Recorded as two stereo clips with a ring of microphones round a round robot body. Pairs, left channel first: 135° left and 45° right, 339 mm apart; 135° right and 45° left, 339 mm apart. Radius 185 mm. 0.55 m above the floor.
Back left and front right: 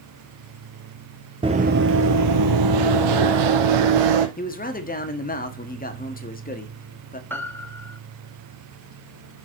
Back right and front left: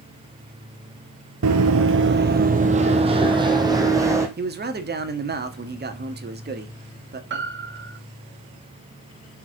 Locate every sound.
1.4 s running footsteps: 25° left, 0.6 m; by 4.3 s 35° right, 1.7 m
4.4 s a man speaking: 85° left, 1.4 m
7.3 s a piano: 55° left, 1.3 m